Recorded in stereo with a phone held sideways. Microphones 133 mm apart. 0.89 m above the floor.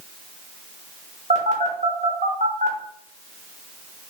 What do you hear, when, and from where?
1.3 s a phone buzzing: 65° right (ahead or behind), 0.9 m